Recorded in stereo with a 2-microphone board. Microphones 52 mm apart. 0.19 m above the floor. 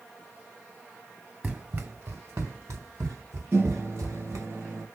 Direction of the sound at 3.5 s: 45° right (ahead or behind).